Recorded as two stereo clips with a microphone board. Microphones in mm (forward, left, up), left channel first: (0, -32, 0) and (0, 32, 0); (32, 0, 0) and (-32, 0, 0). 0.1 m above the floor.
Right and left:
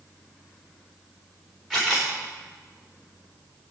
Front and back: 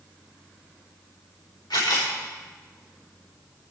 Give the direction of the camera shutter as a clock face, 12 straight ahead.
12 o'clock.